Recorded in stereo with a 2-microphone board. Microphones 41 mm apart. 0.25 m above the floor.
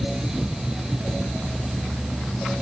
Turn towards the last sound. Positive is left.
No sound to turn to.